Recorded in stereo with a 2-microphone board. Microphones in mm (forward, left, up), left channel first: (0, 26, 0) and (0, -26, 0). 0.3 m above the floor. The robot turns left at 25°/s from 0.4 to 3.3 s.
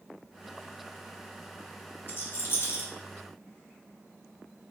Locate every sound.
2.1 s a rattle: 45° left (ahead or behind), 0.7 m; by 2.9 s 55° left (ahead or behind), 0.7 m